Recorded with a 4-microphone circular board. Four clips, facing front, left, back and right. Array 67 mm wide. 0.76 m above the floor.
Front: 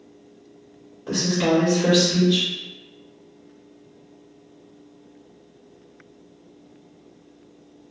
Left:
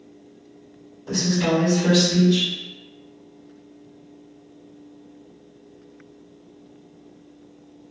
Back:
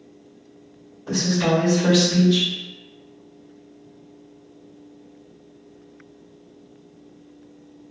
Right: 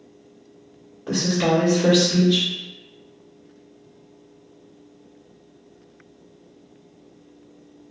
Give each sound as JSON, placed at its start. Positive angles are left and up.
{"t": 1.1, "sound": "a woman speaking", "azimuth_deg": -75, "distance_m": 1.3}